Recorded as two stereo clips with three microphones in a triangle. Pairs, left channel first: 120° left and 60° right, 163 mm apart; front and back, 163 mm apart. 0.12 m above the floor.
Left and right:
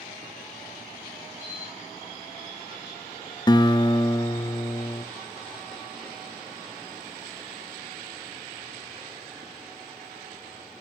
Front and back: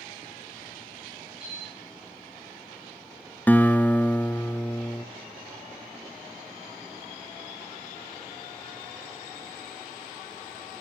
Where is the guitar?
75° left, 0.7 m.